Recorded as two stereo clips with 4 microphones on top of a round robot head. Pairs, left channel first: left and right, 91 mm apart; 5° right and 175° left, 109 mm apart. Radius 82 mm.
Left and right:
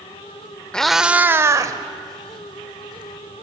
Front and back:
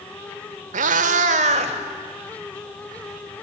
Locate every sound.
0.7 s a cat meowing: 170° left, 0.7 m; by 3.4 s 125° right, 2.5 m